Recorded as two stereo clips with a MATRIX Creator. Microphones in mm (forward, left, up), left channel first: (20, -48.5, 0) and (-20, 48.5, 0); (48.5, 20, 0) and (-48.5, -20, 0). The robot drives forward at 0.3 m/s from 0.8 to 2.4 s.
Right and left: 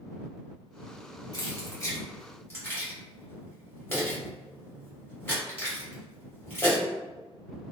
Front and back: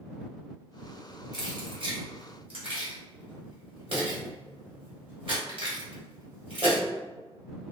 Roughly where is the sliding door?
No sliding door in this recording.